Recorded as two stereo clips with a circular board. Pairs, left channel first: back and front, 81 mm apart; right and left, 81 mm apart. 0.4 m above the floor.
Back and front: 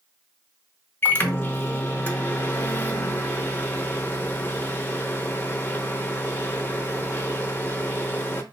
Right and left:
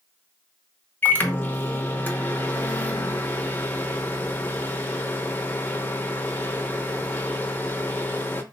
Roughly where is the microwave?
Behind right.